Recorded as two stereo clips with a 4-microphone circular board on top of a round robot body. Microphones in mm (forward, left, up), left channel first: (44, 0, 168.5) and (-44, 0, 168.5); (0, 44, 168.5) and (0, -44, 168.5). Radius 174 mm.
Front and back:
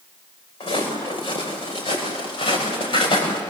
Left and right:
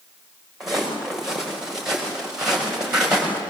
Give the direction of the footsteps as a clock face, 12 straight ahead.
12 o'clock.